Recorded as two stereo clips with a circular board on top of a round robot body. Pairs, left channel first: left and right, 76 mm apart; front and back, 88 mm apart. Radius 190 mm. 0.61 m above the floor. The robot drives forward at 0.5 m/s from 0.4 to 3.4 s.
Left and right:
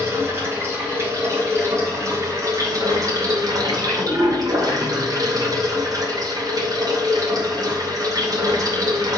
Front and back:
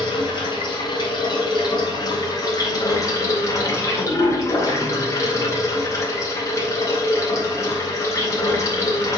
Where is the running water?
35° right, 3.5 m; by 9.2 s 55° right, 2.5 m.